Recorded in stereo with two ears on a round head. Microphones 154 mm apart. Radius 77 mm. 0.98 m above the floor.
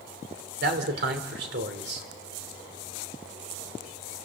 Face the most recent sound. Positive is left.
turn(degrees=-65)  # may be behind; listen again after turning